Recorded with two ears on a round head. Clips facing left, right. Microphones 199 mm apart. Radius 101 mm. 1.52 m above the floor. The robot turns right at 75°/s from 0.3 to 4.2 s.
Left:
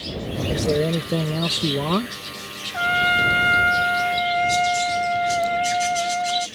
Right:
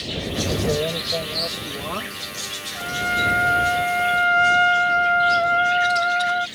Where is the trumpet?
85° left; by 6.5 s 165° right.